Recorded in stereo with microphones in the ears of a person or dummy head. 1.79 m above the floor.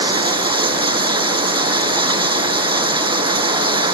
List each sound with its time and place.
0.0 s running water: 25° right (ahead or behind)